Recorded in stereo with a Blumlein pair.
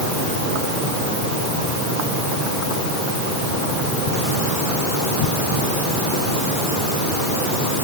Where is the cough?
I don't hear a cough.